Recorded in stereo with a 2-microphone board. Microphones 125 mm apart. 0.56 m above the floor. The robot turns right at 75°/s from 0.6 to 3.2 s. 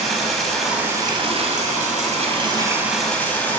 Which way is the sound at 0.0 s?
Straight behind.